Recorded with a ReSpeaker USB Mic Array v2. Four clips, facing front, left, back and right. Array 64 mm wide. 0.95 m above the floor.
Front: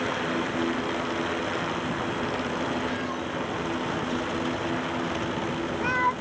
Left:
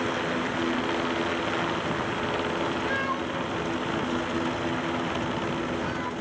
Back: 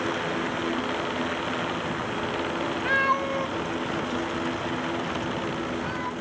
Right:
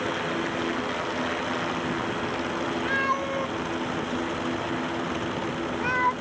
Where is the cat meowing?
170° right; by 6.1 s 50° right.